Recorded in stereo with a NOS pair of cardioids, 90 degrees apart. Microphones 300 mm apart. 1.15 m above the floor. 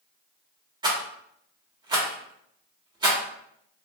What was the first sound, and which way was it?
A rattle, 15° right.